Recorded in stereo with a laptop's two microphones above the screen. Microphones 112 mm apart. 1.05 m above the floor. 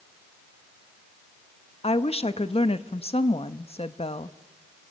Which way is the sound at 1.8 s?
65° left (ahead or behind).